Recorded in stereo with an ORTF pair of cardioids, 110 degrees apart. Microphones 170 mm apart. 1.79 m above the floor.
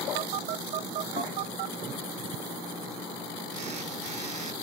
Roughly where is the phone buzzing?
Ahead right.